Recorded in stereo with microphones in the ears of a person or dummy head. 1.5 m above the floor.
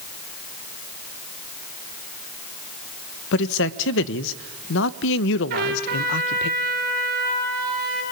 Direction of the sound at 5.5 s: 60° right (ahead or behind).